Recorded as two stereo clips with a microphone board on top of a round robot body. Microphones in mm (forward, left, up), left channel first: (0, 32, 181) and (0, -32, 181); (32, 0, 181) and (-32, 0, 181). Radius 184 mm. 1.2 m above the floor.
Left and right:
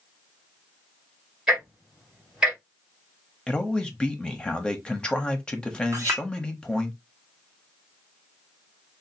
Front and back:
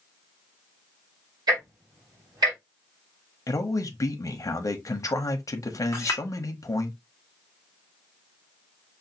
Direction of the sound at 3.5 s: 15° left.